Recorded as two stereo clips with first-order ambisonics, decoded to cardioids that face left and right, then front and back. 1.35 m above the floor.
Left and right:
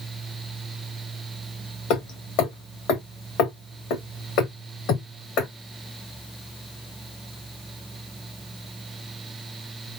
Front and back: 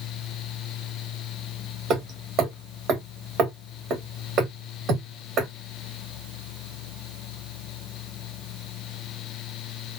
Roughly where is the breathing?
I don't hear breathing.